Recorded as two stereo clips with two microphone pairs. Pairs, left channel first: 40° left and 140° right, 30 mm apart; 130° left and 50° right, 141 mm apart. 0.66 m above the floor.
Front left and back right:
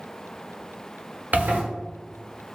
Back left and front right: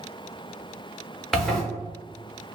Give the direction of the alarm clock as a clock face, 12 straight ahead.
I don't hear an alarm clock.